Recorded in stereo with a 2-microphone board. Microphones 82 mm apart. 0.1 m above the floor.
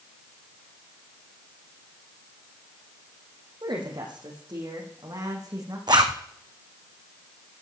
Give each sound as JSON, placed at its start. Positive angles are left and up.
{"t": 3.6, "sound": "a woman speaking", "side_deg": -70, "distance_m": 4.5}
{"t": 5.9, "sound": "a zipper", "side_deg": -60, "distance_m": 1.5}